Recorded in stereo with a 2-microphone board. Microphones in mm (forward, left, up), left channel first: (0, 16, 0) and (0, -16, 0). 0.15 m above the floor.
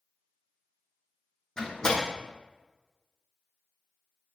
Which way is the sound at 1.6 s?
25° left (ahead or behind).